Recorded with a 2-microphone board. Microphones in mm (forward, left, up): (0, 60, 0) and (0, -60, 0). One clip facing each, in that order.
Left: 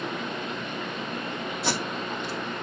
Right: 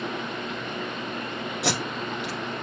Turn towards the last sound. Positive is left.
turn(degrees=-75)  # may be behind; listen again after turning